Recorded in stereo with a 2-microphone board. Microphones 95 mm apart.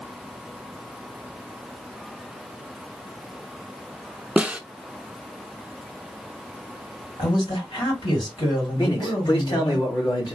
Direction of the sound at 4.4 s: 15° right (ahead or behind).